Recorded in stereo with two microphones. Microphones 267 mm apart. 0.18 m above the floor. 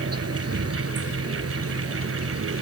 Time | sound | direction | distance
0.0 | an insect | 65° right (ahead or behind) | ?